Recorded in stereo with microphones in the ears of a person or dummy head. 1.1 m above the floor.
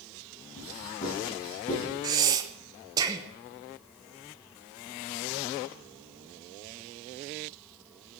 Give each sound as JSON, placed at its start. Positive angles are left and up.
{"t": 0.6, "sound": "writing", "side_deg": 40, "distance_m": 9.5}
{"t": 2.0, "sound": "breathing", "side_deg": -20, "distance_m": 1.0}